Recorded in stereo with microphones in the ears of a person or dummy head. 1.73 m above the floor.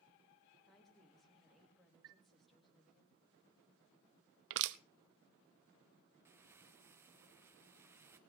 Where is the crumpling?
10° right (ahead or behind), 0.6 m.